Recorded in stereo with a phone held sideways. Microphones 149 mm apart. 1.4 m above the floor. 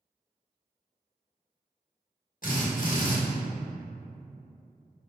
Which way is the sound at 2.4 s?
60° left (ahead or behind).